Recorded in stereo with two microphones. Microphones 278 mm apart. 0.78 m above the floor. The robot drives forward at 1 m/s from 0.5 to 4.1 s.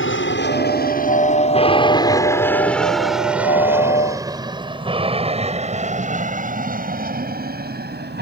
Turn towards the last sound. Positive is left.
turn(degrees=-35)  # may be behind; listen again after turning